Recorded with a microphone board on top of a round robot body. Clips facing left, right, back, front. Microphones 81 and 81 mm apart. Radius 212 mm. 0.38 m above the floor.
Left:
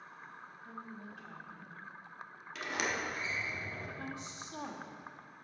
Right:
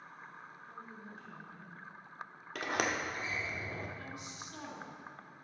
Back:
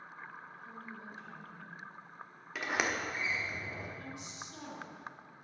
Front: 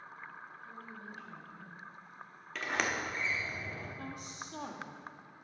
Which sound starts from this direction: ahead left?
A woman speaking, at 4.0 s.